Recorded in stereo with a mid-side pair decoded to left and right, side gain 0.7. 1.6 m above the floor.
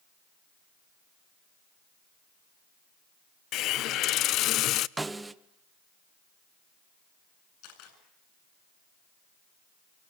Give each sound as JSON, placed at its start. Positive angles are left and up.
{"t": 3.5, "sound": "a hiss", "azimuth_deg": 55, "distance_m": 0.6}
{"t": 5.0, "sound": "a snare drum", "azimuth_deg": -10, "distance_m": 0.9}
{"t": 7.6, "sound": "a camera shutter", "azimuth_deg": 65, "distance_m": 8.5}